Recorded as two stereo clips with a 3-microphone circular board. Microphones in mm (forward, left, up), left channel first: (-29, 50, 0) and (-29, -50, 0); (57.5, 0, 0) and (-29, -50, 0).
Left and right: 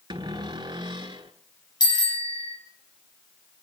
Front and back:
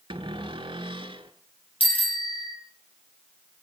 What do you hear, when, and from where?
0.1 s a cupboard door: 125° right, 1.6 m
1.8 s a bicycle bell: 45° left, 3.5 m